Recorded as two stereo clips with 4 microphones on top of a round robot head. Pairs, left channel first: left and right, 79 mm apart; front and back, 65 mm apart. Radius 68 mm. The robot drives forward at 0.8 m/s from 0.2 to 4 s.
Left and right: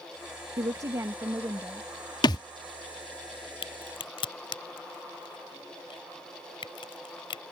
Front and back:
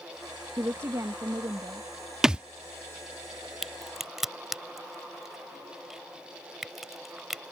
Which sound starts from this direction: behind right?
A woman speaking, at 0.6 s.